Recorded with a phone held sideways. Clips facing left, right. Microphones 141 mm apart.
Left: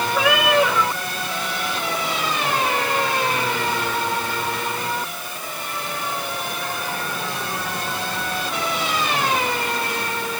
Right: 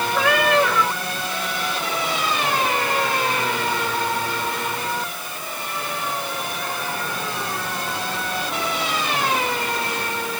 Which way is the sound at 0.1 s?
5° left (ahead or behind).